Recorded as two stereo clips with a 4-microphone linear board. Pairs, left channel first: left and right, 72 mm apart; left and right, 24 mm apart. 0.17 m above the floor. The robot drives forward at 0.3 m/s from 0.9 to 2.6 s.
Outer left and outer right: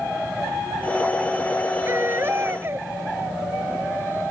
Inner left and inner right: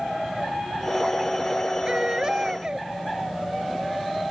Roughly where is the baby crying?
Right.